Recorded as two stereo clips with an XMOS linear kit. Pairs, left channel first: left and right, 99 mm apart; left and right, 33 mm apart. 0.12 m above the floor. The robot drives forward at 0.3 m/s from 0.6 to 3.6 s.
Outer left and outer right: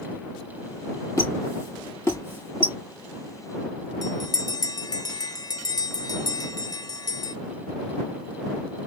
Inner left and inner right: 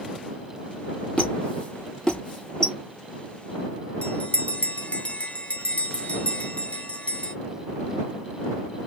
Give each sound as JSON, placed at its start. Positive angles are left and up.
{"t": 1.2, "sound": "a squeak", "side_deg": 35, "distance_m": 1.6}
{"t": 4.0, "sound": "a bell", "side_deg": 45, "distance_m": 0.7}